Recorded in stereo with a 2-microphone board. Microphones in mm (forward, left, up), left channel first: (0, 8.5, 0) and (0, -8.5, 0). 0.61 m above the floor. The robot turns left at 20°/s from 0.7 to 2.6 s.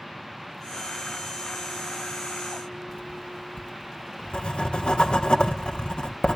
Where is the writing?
60° left (ahead or behind), 1.9 m.